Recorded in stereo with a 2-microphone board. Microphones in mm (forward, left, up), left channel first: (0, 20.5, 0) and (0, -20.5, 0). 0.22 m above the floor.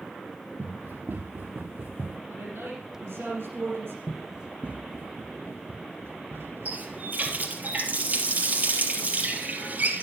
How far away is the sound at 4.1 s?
About 1.0 m.